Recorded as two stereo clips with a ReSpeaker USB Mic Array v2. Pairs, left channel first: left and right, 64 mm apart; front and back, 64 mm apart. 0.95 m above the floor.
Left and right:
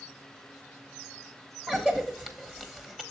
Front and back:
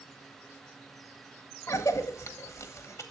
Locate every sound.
1.7 s a cough: 15° right, 1.1 m